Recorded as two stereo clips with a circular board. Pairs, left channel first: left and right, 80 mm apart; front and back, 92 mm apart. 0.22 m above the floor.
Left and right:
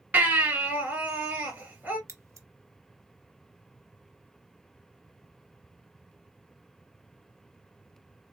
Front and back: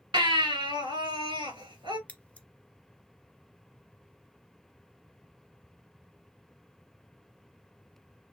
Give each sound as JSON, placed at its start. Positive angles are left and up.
{"t": 0.1, "sound": "a baby crying", "azimuth_deg": -155, "distance_m": 3.0}
{"t": 2.1, "sound": "scissors", "azimuth_deg": -65, "distance_m": 0.8}